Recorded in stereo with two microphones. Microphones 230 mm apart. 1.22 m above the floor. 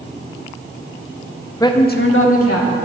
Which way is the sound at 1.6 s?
15° left (ahead or behind).